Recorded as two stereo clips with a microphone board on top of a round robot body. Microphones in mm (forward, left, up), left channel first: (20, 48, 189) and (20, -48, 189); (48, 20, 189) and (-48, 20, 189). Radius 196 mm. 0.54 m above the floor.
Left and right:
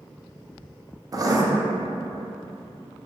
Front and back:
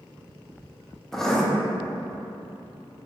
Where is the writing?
85° right, 0.6 m.